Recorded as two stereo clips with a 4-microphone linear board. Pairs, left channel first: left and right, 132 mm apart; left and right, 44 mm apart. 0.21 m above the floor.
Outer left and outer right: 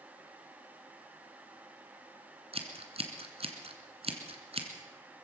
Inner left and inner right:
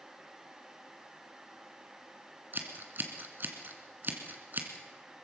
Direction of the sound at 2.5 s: 50° right (ahead or behind).